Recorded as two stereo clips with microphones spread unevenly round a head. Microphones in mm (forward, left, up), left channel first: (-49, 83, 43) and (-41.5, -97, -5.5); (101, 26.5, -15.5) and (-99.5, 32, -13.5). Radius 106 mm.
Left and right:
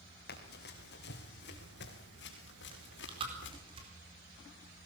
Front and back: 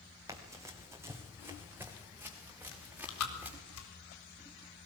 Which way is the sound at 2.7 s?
20° right.